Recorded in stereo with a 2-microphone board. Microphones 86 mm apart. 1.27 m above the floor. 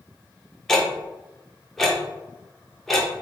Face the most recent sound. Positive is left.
turn(degrees=5)  # may be behind; listen again after turning